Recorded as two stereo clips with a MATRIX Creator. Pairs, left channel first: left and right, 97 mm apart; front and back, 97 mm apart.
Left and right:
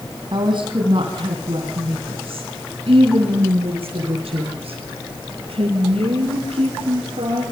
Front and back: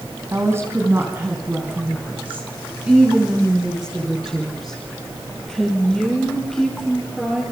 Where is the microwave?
I don't hear a microwave.